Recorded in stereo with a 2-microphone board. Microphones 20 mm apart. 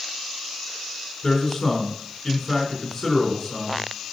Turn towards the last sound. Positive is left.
turn(degrees=25)  # may be behind; listen again after turning